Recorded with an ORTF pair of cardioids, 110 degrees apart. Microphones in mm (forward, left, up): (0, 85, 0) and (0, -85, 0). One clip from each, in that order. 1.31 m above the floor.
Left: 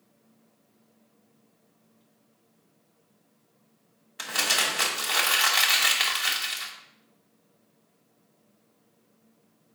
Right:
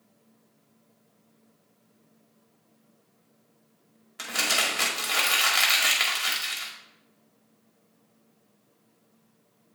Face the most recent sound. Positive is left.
turn(degrees=5)